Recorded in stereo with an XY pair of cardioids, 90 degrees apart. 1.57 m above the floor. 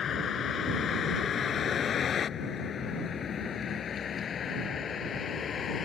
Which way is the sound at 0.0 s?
65° left.